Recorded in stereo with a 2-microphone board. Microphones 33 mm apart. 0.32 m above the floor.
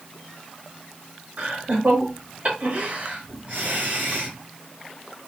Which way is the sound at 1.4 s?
50° right (ahead or behind).